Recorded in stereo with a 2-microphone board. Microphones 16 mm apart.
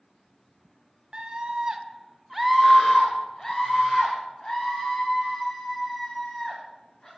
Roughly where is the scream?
Right.